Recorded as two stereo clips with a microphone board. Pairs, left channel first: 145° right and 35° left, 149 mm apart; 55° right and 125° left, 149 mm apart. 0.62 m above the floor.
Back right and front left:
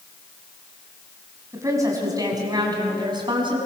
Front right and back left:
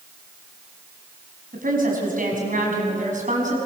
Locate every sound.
1.5 s a woman speaking: 105° left, 5.5 m; by 3.6 s 90° left, 6 m